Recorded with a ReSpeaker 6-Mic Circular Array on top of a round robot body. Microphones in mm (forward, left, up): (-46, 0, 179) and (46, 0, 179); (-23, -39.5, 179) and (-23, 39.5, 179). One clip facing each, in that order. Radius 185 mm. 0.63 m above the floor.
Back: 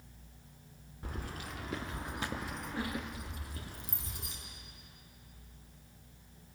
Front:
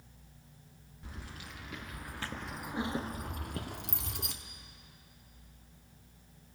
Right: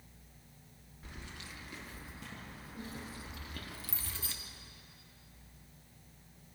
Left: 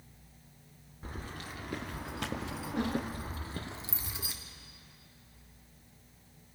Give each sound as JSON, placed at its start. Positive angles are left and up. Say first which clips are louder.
{"t": 1.0, "sound": "keys jangling", "louder": "back 5 dB, left 7 dB", "azimuth_deg": 140, "distance_m": 1.4}